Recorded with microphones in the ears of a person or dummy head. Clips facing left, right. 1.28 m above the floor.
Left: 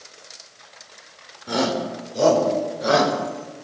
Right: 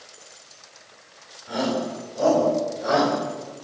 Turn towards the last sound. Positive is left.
turn(degrees=40)  # may be behind; listen again after turning